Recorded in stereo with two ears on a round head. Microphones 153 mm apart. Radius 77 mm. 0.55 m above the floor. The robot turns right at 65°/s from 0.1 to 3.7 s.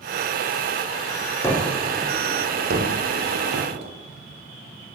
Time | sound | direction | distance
1.4 | a gunshot | 165° left | 8 m